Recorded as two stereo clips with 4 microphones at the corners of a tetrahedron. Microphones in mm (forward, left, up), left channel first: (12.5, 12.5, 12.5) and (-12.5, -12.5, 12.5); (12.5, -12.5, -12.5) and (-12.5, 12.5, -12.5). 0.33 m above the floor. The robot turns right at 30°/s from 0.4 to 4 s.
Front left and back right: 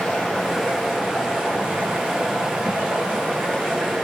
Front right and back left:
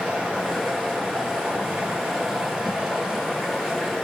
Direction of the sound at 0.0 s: 125° left.